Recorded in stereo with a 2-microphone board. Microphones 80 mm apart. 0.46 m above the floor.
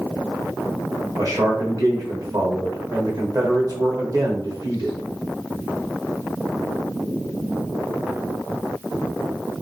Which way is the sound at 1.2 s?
45° right (ahead or behind).